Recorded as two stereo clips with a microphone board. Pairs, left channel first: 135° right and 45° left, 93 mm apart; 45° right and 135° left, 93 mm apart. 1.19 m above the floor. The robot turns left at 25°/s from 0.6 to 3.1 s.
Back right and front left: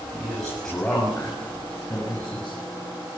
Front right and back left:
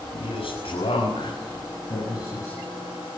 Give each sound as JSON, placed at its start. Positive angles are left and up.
{"t": 0.1, "sound": "a man speaking", "azimuth_deg": -50, "distance_m": 7.0}